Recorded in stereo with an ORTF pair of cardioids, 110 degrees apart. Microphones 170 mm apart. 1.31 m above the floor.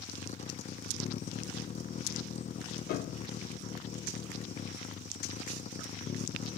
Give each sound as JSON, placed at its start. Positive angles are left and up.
{"t": 0.0, "sound": "a vehicle", "azimuth_deg": 45}
{"t": 2.9, "sound": "a piano", "azimuth_deg": 70}